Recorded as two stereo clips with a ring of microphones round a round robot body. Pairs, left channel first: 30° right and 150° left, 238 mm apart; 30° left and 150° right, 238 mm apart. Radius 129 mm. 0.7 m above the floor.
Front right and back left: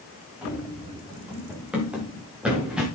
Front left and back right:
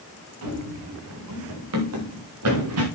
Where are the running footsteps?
125° right, 5.5 m.